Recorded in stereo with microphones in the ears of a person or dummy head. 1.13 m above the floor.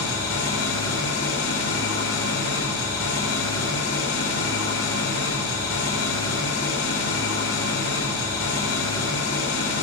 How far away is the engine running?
About 3.5 m.